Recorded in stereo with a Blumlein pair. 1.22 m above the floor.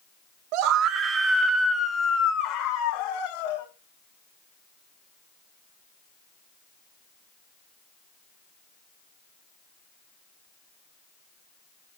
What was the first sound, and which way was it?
A scream, 45° right.